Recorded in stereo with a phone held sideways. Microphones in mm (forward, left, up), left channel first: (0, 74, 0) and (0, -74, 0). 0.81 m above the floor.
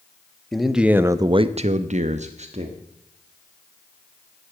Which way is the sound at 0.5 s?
Centre (ahead or behind).